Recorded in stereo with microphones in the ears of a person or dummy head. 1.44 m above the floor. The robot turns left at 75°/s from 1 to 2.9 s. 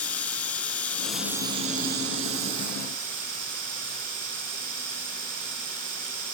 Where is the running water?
10° left, 2.5 m; by 6.3 s 130° right, 2.5 m.